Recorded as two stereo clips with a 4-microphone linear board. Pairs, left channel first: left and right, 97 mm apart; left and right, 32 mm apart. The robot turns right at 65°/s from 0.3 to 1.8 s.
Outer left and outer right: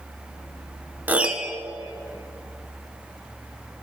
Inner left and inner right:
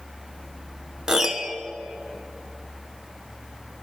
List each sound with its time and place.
1.1 s a piano: 35° right, 0.7 m; by 1.6 s straight ahead, 0.7 m